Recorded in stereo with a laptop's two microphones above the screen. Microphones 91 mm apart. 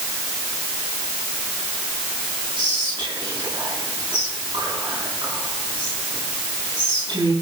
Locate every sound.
2.5 s whispering: 65° right (ahead or behind), 5.5 m